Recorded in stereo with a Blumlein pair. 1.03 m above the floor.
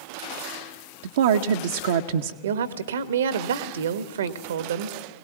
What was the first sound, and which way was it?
A woman speaking, 60° right.